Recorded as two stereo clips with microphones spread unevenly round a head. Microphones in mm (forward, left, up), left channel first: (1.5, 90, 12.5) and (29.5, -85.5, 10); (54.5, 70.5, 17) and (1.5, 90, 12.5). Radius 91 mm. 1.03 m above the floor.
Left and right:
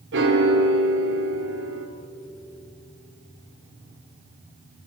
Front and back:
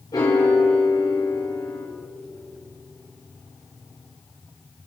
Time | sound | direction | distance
0.1 | a piano | 65° right | 3.5 m